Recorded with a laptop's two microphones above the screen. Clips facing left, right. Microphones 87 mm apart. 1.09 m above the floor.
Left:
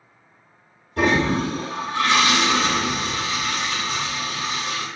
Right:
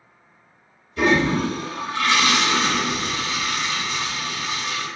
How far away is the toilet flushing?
About 1.2 m.